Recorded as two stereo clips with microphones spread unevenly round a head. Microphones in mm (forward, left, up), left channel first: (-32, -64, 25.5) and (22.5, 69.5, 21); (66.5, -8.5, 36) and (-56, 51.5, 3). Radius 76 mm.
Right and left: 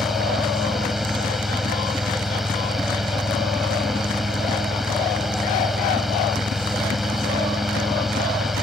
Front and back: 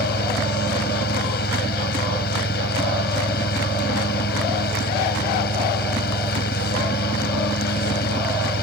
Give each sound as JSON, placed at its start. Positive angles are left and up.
{"t": 0.0, "sound": "a fan", "azimuth_deg": -20}